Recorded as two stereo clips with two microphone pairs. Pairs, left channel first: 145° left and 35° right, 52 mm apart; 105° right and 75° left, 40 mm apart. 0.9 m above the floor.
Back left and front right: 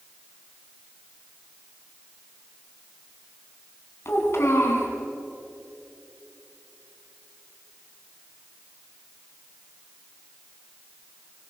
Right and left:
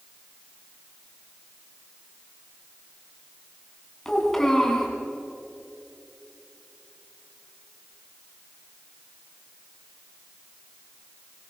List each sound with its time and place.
4.0 s a child speaking: 175° left, 5.5 m